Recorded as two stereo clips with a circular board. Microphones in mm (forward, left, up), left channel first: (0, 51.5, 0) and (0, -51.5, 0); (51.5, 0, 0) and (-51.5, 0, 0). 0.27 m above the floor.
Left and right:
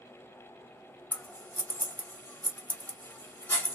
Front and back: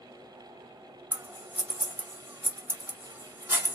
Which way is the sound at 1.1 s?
140° left.